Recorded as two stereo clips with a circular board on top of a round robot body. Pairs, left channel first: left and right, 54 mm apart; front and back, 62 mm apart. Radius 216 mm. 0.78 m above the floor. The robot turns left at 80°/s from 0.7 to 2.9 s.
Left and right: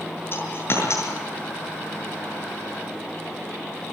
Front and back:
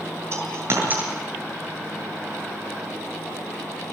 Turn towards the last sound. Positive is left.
turn(degrees=-40)